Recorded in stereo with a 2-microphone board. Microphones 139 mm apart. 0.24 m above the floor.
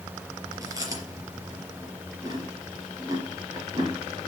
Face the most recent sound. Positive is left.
turn(degrees=-25)  # may be behind; listen again after turning